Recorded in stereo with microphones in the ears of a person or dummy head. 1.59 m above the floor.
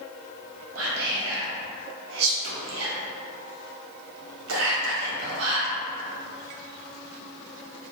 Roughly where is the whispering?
Right.